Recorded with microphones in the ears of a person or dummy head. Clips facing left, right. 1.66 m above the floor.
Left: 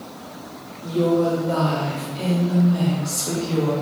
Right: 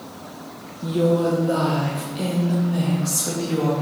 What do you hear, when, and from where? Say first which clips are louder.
0.8 s a woman speaking: even; 15° right (ahead or behind), 0.8 m; by 3.7 s 10° right (ahead or behind), 2.5 m